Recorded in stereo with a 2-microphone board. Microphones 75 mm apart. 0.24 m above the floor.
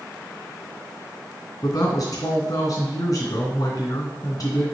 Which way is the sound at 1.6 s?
45° left (ahead or behind).